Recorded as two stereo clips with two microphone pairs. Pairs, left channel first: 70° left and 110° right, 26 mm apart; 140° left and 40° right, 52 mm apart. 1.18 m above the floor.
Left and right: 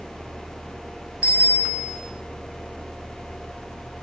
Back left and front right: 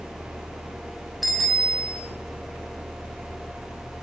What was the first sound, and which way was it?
A bicycle bell, 125° right.